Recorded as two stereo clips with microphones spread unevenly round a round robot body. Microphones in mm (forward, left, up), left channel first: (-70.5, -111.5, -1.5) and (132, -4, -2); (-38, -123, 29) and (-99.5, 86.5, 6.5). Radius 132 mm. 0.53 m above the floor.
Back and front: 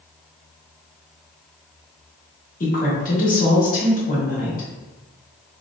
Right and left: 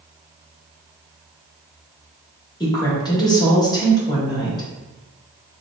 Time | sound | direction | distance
2.6 | a woman speaking | 140° right | 1.2 m